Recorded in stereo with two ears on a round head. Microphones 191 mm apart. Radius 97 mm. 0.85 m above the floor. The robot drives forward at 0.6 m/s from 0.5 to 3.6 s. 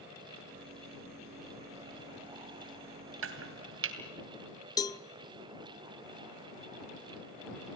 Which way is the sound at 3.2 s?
75° right (ahead or behind).